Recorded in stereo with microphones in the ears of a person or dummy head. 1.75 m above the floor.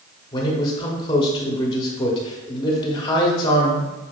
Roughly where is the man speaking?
Left.